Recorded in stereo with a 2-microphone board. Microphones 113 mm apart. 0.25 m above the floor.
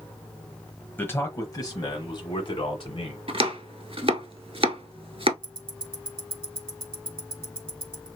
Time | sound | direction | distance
1.0 | a man speaking | 20° left (ahead or behind) | 1.1 m
3.3 | chopping | 55° right (ahead or behind) | 0.8 m
5.4 | ticking | 50° right (ahead or behind) | 0.8 m